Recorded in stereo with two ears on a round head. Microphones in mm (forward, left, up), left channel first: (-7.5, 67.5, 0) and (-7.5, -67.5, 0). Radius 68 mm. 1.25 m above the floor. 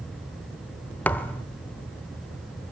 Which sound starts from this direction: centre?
A thud, at 1.1 s.